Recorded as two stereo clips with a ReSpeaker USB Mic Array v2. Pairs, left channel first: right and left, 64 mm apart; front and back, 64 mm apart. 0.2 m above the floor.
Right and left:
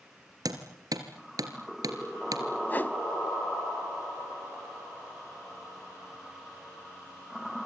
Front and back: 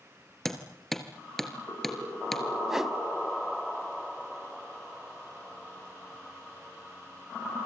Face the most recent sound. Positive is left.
turn(degrees=-100)